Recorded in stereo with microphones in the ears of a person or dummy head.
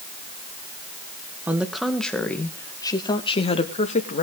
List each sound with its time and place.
1.5 s a woman speaking: 5° right (ahead or behind), 1.6 m; by 4.2 s 45° left (ahead or behind), 1.9 m